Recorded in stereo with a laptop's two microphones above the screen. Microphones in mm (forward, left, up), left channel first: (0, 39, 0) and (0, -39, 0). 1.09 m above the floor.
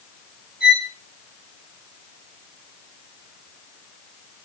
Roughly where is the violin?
Centre.